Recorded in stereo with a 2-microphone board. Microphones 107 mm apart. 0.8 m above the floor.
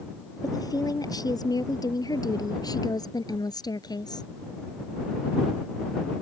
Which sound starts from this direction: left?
A woman speaking, at 0.4 s.